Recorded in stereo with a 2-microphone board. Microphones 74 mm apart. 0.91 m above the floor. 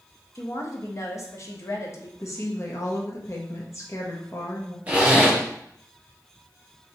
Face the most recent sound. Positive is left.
turn(degrees=-20)  # may be behind; listen again after turning